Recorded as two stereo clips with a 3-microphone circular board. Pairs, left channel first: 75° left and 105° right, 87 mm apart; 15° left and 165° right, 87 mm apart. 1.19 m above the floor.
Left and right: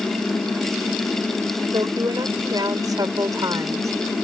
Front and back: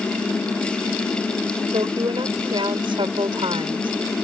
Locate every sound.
1.7 s a woman speaking: 145° right; by 3.9 s 155° right